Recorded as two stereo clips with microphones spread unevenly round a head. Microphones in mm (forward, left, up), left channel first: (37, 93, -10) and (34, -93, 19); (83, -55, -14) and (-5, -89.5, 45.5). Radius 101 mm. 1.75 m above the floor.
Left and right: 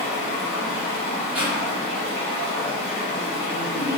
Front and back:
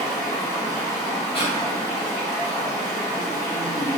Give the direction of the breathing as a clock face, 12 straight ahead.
1 o'clock.